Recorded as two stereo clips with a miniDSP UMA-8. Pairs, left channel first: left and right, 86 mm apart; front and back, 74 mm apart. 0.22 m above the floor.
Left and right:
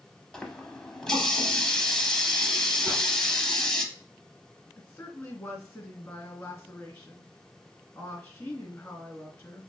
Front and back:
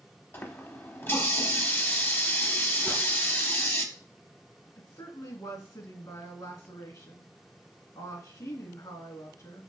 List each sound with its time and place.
0.3 s a running tap: 15° left, 0.7 m
2.9 s a whoosh: 15° right, 2.5 m
4.8 s a woman speaking: 15° left, 2.5 m